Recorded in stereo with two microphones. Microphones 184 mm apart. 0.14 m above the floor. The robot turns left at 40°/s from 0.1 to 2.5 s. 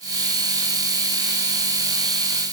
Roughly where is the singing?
No singing in this recording.